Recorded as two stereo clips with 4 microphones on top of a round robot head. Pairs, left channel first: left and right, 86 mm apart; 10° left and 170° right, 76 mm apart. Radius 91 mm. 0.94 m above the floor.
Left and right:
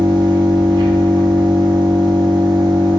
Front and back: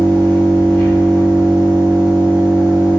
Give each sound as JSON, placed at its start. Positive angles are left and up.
{"t": 0.0, "sound": "an engine running", "azimuth_deg": -55, "distance_m": 0.9}